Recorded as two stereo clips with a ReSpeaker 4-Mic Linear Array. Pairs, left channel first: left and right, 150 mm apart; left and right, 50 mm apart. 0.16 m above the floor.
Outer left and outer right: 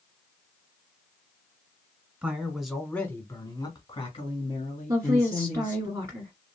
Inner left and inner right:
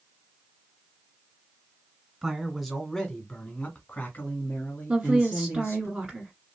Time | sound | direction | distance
2.2 | a man speaking | 10° right (ahead or behind) | 1.2 m
4.9 | a woman speaking | 20° right (ahead or behind) | 1.4 m